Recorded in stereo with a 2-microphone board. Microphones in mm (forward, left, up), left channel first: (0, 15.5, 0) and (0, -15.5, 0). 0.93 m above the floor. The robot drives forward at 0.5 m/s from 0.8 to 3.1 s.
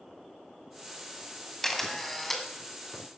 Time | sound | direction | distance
1.6 | a camera shutter | 5° left (ahead or behind) | 1.5 m